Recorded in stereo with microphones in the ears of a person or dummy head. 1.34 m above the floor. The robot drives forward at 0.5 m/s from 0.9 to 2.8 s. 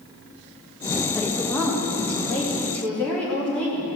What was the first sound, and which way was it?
A woman speaking, 5° left (ahead or behind).